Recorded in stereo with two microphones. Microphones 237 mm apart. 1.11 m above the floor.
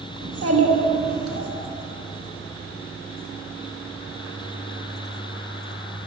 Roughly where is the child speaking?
Right.